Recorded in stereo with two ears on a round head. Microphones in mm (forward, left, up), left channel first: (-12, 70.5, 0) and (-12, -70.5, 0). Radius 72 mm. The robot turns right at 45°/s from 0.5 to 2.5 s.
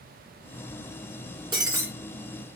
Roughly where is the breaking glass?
Right.